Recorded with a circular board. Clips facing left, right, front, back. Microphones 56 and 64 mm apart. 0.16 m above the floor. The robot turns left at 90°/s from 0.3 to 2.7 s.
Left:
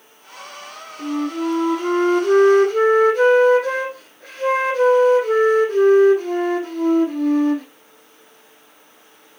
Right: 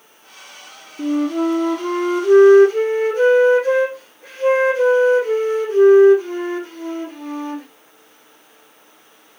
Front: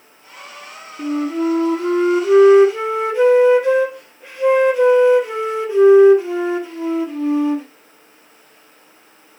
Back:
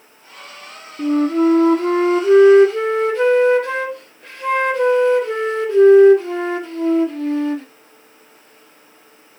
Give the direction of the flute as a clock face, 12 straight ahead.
4 o'clock.